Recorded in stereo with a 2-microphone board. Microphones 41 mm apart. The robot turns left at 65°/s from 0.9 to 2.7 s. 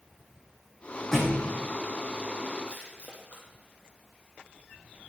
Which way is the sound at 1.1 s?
10° left (ahead or behind).